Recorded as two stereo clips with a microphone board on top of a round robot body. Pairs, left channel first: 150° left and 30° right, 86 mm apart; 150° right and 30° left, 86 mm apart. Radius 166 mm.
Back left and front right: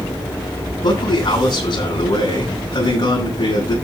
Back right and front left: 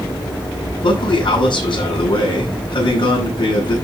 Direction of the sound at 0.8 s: Straight behind.